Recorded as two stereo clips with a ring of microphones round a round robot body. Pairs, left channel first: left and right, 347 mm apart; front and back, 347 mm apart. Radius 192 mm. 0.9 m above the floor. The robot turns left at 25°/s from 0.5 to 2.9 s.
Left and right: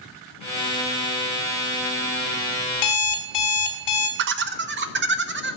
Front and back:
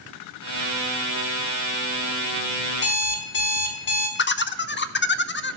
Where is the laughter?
45° right, 0.7 m.